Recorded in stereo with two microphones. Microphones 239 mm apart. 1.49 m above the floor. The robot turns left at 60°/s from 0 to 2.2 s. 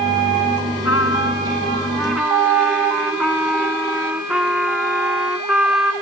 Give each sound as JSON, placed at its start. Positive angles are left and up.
{"t": 0.8, "sound": "a trumpet", "azimuth_deg": 75}